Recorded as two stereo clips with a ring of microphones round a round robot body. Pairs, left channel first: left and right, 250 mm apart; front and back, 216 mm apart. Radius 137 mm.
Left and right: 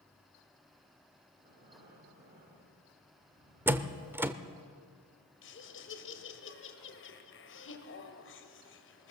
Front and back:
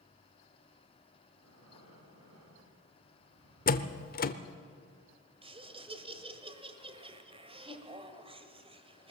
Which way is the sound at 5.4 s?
120° left.